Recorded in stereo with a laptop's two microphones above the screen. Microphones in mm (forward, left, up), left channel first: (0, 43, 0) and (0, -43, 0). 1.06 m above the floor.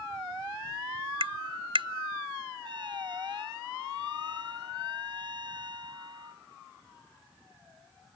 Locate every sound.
1.2 s tapping: 75° right (ahead or behind)
2.6 s a trumpet: 60° right (ahead or behind)